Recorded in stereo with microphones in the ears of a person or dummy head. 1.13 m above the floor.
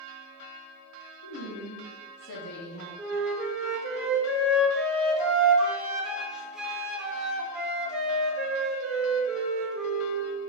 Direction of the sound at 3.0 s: 5° right (ahead or behind).